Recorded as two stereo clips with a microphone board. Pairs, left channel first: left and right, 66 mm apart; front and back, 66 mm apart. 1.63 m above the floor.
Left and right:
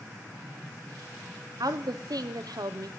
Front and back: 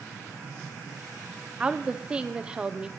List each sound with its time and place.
1.6 s a woman speaking: 105° right, 0.7 m